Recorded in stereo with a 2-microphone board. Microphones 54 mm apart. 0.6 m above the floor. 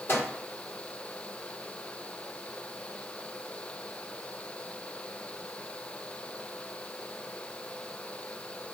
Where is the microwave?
50° left (ahead or behind), 1.8 m.